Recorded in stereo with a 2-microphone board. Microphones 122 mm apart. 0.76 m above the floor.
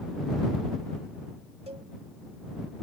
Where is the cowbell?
55° right (ahead or behind).